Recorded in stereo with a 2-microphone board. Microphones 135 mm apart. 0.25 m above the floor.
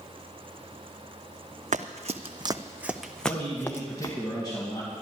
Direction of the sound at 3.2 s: 35° left (ahead or behind).